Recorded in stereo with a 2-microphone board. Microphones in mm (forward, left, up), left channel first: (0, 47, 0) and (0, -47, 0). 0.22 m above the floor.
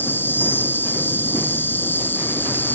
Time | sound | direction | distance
0.0 | an insect | 20° left (ahead or behind) | ?